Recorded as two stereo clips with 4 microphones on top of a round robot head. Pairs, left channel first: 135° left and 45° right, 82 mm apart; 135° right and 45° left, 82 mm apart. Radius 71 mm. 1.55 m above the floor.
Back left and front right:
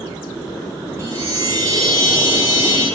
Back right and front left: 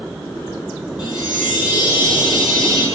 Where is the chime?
95° right, 8.5 m.